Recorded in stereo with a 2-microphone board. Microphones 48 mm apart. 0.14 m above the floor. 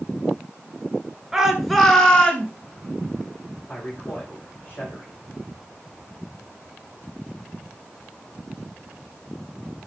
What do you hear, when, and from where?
1.3 s a shout: 10° right (ahead or behind), 2.5 m; by 2.5 s 30° left (ahead or behind), 2.5 m
3.7 s a man speaking: 45° left (ahead or behind), 7.5 m